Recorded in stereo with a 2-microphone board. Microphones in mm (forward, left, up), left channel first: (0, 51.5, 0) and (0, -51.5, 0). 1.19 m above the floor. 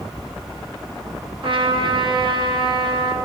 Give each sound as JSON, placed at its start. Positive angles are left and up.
{"t": 1.4, "sound": "a trumpet", "side_deg": -55, "distance_m": 1.0}